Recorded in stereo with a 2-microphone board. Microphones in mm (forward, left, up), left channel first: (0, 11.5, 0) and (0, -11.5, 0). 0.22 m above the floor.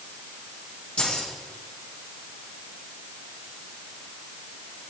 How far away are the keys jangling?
About 6 m.